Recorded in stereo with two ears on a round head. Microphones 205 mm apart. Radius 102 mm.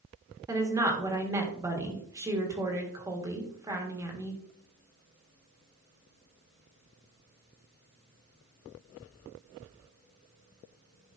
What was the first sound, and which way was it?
A woman speaking, 15° right (ahead or behind).